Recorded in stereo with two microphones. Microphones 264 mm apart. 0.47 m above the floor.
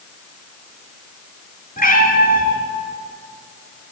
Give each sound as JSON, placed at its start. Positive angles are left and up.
{"t": 1.8, "sound": "a cat meowing", "side_deg": 30, "distance_m": 1.4}